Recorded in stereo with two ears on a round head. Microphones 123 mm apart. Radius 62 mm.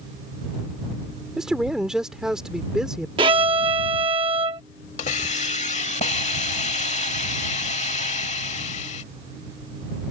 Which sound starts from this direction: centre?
A man speaking, at 1.4 s.